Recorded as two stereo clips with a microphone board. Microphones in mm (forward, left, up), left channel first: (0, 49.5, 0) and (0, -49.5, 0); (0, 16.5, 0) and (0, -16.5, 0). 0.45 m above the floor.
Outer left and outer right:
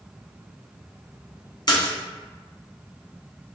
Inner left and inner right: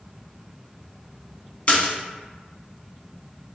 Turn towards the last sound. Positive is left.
turn(degrees=45)  # may be behind; listen again after turning